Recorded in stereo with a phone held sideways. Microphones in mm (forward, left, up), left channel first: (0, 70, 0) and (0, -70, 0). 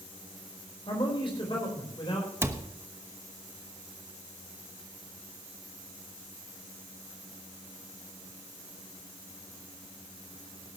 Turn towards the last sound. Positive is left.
turn(degrees=-15)  # may be behind; listen again after turning